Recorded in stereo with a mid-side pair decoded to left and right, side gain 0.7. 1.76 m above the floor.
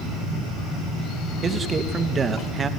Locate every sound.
1.4 s a man speaking: 25° right, 3 m